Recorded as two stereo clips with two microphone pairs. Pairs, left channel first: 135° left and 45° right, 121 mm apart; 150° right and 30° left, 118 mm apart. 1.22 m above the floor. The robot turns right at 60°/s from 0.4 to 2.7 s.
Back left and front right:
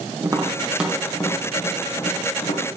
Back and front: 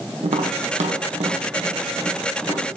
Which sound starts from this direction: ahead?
Tapping, at 0.2 s.